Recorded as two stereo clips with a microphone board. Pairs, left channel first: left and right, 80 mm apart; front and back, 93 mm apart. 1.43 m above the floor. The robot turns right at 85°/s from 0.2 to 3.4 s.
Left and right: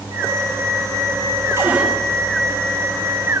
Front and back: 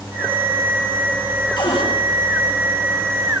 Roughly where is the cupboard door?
Ahead right.